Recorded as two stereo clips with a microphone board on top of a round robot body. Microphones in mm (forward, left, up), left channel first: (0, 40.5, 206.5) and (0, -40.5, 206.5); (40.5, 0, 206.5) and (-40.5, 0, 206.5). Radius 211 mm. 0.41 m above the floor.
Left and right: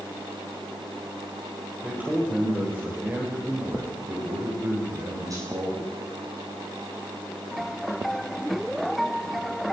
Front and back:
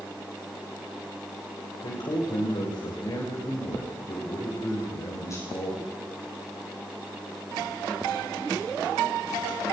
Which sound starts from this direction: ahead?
A man speaking, at 1.8 s.